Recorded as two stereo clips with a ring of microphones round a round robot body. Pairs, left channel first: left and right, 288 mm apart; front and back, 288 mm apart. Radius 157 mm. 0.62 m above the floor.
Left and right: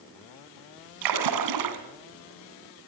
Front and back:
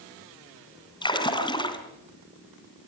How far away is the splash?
About 2.5 m.